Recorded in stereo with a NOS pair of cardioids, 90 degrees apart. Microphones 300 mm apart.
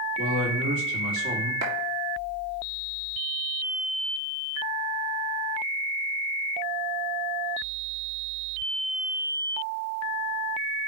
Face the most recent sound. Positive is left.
turn(degrees=-60)